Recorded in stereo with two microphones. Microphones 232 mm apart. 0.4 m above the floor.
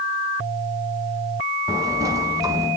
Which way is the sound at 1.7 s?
15° right (ahead or behind).